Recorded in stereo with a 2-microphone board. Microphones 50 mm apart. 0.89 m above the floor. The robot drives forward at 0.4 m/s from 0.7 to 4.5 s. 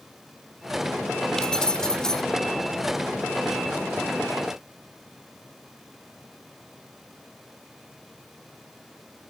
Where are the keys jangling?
15° left (ahead or behind); by 2.2 s 10° left (ahead or behind).